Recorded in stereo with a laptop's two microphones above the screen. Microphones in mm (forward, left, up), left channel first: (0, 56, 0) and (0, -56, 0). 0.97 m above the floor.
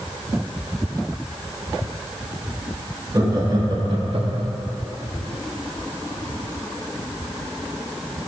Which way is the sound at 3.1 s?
30° right (ahead or behind).